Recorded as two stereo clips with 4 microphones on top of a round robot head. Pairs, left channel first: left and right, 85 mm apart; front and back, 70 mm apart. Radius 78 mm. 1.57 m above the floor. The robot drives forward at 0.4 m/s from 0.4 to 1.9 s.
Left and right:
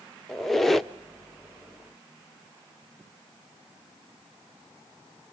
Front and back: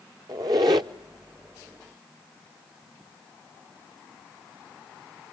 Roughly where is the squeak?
Behind.